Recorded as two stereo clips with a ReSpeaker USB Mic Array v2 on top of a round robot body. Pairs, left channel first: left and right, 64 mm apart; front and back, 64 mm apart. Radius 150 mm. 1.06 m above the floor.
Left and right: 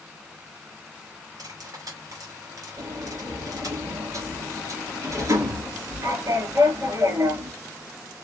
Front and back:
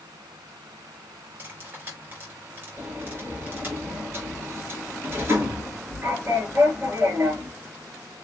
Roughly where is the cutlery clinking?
Behind right.